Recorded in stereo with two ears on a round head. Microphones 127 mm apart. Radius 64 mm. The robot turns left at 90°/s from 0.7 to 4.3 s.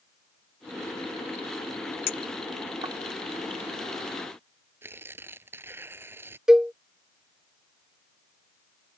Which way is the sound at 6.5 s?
5° right (ahead or behind).